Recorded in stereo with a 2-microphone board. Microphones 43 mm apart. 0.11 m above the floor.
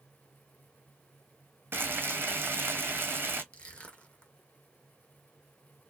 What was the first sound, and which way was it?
Frying, 65° right (ahead or behind).